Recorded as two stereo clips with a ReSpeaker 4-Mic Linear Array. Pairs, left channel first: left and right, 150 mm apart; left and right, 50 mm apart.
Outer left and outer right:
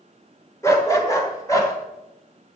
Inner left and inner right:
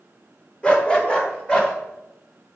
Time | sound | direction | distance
0.6 | a dog barking | 20° left (ahead or behind) | 1.2 m